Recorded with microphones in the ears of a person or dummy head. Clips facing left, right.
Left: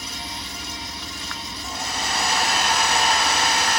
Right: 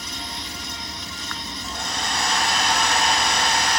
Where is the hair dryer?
5° left (ahead or behind), 0.6 m.